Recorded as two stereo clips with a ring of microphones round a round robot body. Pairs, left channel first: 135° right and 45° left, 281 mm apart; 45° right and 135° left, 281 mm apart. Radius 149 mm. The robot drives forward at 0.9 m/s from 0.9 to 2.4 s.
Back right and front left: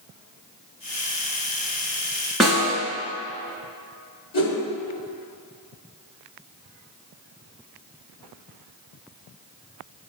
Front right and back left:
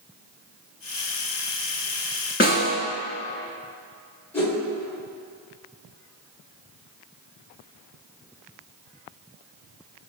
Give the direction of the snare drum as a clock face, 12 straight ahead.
2 o'clock.